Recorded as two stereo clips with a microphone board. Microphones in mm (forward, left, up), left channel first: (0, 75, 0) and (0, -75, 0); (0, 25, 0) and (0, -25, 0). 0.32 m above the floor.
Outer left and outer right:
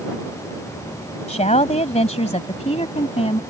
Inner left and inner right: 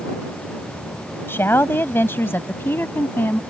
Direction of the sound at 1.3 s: 50° left (ahead or behind).